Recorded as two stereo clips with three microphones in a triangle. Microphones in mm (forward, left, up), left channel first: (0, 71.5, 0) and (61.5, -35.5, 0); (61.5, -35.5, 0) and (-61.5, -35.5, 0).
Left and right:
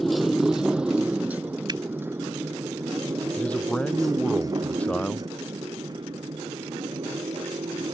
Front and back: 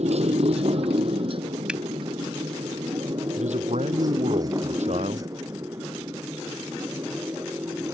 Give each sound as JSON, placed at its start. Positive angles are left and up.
{"t": 0.0, "sound": "a motorcycle", "azimuth_deg": -150}
{"t": 1.7, "sound": "a finger snap", "azimuth_deg": -105}
{"t": 3.4, "sound": "a man speaking", "azimuth_deg": -160}